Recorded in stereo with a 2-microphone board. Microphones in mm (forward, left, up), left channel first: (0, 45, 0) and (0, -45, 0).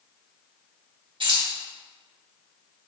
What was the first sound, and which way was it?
Keys jangling, 65° right (ahead or behind).